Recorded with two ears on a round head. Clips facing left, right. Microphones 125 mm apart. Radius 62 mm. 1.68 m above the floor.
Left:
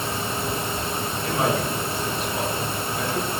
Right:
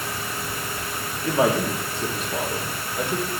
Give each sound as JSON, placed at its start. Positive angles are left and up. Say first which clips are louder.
{"t": 1.2, "sound": "a man speaking", "louder": "right 4 dB", "side_deg": -70, "distance_m": 1.8}